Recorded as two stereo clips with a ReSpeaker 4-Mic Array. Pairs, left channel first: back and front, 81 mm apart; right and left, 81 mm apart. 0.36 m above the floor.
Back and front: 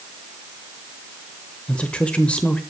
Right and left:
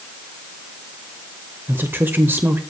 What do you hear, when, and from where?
1.7 s a woman speaking: 120° left, 1.0 m